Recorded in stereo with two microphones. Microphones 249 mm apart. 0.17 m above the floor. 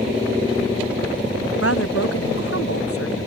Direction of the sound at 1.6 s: 60° left (ahead or behind).